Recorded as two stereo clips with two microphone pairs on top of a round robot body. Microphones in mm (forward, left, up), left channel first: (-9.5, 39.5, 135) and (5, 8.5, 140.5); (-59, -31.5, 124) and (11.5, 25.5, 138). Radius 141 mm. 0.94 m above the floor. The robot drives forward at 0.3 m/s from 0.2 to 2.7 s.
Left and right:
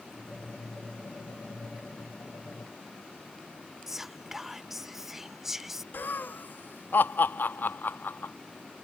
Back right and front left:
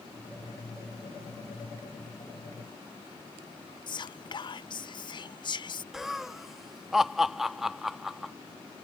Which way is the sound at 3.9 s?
150° right.